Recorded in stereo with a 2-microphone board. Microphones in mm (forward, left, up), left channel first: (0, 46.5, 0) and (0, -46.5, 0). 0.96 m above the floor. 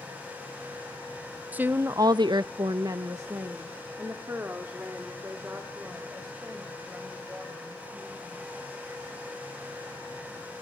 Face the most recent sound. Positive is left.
turn(degrees=-15)  # may be behind; listen again after turning